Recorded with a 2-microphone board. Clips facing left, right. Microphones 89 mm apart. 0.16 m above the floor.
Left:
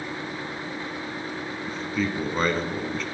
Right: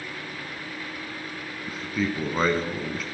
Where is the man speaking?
10° right (ahead or behind), 1.1 m.